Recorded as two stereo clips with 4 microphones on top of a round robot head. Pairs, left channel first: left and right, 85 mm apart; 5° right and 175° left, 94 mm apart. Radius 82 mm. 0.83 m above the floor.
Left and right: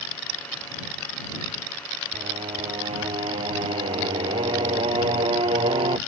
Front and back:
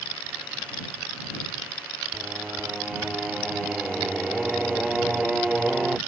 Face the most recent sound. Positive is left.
turn(degrees=-100)